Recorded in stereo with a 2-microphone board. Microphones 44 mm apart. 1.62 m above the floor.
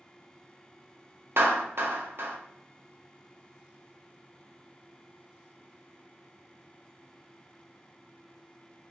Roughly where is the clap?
Right.